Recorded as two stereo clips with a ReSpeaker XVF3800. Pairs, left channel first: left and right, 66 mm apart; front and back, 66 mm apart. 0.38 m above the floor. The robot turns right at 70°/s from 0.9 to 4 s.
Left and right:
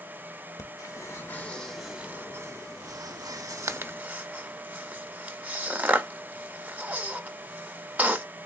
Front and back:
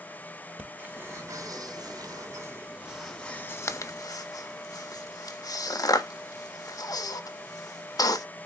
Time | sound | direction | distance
0.6 | breathing | 120° left | 0.6 m